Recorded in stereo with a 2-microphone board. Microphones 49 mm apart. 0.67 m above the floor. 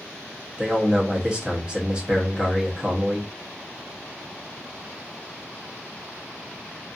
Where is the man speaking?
20° right (ahead or behind), 0.8 m.